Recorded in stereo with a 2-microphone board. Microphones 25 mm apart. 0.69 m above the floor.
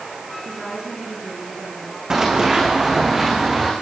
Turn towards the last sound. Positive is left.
turn(degrees=-15)  # may be behind; listen again after turning